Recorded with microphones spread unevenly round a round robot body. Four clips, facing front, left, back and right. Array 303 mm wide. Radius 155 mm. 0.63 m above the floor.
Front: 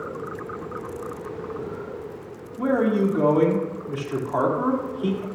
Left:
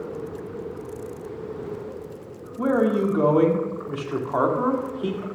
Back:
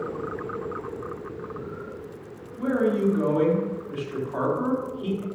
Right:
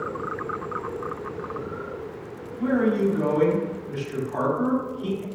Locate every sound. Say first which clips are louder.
2.6 s a man speaking: left 1 dB, front 2 dB; 40° left, 1.8 m